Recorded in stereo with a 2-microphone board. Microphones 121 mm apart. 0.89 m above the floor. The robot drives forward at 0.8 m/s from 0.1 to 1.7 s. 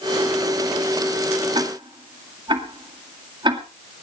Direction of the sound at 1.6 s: 45° right (ahead or behind).